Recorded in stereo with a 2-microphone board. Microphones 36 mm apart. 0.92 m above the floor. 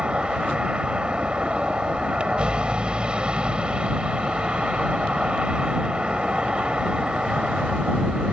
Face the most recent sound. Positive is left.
turn(degrees=-30)  # may be behind; listen again after turning